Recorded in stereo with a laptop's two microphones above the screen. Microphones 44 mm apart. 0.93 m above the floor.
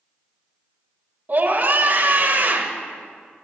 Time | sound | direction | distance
1.3 | a scream | 45° right (ahead or behind) | 0.9 m